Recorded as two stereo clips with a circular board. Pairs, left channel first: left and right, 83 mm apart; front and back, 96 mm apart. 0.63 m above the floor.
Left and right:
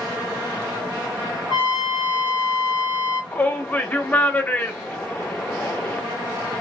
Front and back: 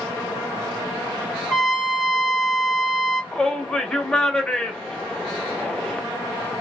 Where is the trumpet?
95° right, 3 m.